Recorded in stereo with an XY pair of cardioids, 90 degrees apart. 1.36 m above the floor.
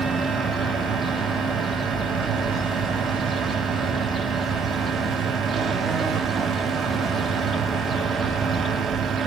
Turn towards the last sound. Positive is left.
turn(degrees=-65)